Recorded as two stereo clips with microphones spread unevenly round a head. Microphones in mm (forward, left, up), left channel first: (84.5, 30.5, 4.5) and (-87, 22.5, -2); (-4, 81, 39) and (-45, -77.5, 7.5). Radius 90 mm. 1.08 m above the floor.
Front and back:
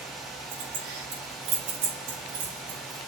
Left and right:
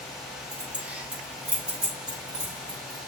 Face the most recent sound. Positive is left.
turn(degrees=170)